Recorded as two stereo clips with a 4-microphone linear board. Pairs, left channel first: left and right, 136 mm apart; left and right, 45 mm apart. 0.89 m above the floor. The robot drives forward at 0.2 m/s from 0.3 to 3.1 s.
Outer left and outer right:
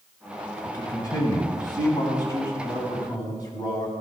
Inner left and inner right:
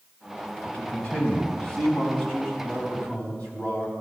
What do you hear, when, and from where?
0.6 s a man speaking: 25° left (ahead or behind), 5 m